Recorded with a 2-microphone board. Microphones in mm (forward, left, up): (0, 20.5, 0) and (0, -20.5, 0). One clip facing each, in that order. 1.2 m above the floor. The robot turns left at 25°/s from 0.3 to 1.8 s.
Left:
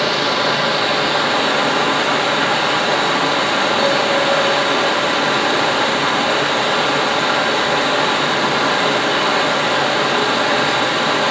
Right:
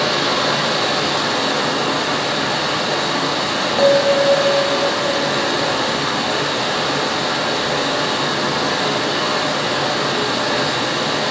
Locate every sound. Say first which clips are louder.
0.0 s running water: left 1 dB; 170° left, 1.1 m; by 11.3 s 135° left, 1.1 m
3.8 s a bell: right 2 dB; 80° right, 0.7 m